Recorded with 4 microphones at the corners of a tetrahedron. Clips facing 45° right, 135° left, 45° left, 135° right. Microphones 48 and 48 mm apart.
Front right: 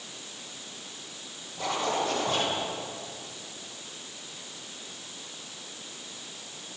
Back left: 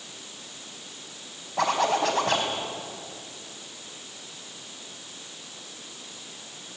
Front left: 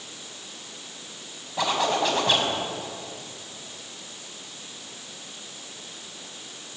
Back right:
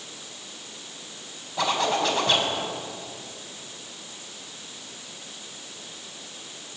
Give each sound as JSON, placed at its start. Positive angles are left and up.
{"t": 1.6, "sound": "a zipper", "azimuth_deg": 130, "distance_m": 5.0}